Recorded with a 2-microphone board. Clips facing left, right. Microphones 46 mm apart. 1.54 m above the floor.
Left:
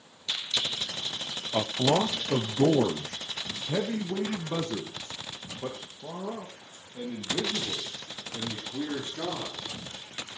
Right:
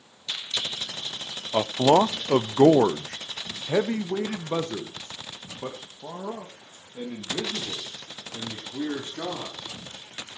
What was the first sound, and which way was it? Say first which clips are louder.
A man speaking: right 6 dB; 30° right (ahead or behind).